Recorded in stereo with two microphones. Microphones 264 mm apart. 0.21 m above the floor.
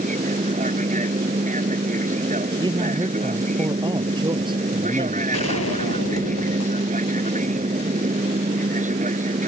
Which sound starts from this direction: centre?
A man speaking, at 2.6 s.